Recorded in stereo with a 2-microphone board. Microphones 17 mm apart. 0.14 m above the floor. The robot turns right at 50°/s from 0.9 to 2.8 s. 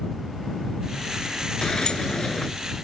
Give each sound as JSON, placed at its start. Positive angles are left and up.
{"t": 1.6, "sound": "a sliding door", "azimuth_deg": 85}